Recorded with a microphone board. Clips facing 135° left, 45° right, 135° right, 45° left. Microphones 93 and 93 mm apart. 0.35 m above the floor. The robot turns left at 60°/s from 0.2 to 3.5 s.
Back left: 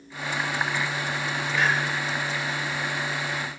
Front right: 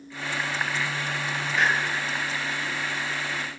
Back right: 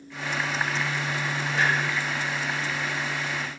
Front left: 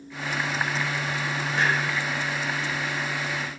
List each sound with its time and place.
1.5 s a clunk: 45° left, 1.6 m; by 1.7 s 30° left, 1.6 m